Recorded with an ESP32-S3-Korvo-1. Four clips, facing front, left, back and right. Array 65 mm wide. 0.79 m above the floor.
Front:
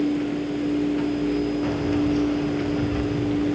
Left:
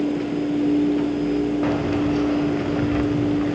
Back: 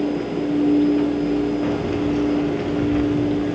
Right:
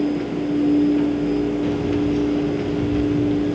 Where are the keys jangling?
95° left, 2.5 m.